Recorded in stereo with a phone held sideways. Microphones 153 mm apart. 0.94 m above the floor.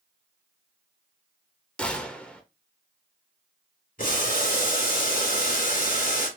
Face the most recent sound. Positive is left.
turn(degrees=65)  # may be behind; listen again after turning